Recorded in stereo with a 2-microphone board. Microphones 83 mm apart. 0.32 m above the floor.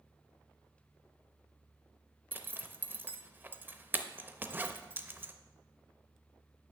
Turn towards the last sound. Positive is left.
turn(degrees=-25)  # may be behind; listen again after turning